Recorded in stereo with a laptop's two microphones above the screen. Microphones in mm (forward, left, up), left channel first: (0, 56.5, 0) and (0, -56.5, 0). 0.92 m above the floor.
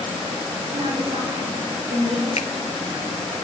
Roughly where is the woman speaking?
Right.